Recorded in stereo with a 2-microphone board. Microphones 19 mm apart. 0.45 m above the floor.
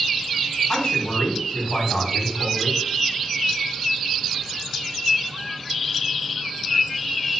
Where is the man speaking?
70° left (ahead or behind), 3 m.